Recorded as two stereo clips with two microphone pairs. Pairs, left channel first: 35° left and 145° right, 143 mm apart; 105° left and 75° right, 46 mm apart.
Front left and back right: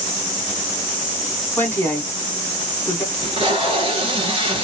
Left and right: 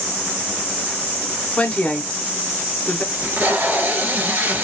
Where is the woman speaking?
90° left, 1.1 m.